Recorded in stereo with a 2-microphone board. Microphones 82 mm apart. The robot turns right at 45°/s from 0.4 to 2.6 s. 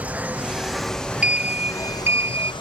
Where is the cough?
I don't hear a cough.